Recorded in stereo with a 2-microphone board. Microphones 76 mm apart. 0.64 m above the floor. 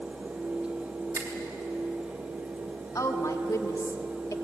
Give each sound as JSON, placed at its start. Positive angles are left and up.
{"t": 1.1, "sound": "a finger snap", "side_deg": -40, "distance_m": 3.0}
{"t": 3.0, "sound": "a woman speaking", "side_deg": 45, "distance_m": 1.5}